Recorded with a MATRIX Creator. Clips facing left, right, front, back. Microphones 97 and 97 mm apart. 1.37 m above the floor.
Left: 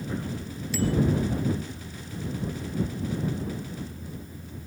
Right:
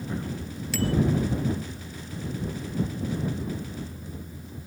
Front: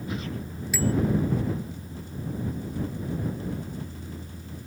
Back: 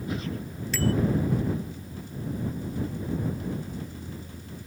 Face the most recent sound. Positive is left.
turn(degrees=-80)